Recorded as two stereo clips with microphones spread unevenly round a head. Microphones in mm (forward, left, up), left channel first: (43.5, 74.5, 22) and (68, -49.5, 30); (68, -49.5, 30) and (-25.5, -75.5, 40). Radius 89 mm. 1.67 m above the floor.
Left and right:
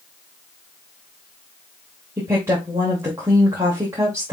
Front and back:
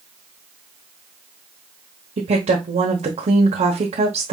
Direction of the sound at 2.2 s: 155° right.